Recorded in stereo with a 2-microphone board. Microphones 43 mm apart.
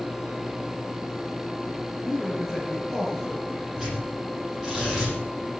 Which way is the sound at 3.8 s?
10° right (ahead or behind).